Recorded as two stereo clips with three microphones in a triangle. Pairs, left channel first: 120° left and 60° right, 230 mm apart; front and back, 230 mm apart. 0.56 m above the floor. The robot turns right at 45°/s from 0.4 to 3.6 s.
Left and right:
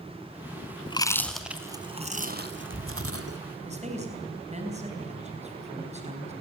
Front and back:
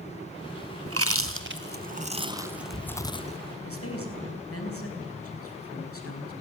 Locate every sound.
0.9 s chewing: 175° right, 1.5 m; by 3.4 s 60° right, 1.5 m
3.6 s a man speaking: straight ahead, 4.5 m